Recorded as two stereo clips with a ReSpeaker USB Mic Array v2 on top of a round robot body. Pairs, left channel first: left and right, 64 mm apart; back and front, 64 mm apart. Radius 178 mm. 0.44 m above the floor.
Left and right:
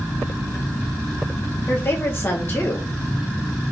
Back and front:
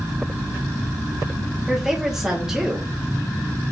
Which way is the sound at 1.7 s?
75° left.